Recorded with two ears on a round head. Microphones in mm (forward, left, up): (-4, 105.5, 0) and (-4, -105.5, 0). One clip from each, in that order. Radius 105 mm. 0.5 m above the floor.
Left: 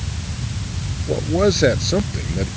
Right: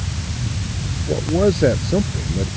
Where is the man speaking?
65° left (ahead or behind); by 2.5 s 75° left (ahead or behind).